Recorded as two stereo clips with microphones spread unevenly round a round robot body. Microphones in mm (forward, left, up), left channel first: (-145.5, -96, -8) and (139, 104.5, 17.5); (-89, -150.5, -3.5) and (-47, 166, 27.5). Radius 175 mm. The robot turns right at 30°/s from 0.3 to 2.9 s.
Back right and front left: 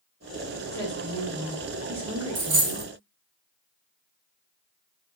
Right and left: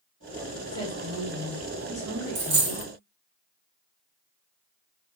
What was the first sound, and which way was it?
A woman speaking, 90° right.